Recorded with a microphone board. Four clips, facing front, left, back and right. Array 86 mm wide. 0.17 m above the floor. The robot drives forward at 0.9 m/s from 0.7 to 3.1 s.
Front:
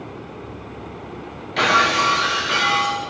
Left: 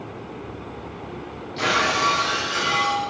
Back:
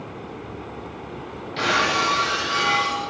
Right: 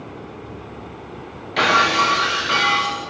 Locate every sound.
1.6 s breaking glass: 65° right, 7.5 m; by 3.0 s 75° right, 7 m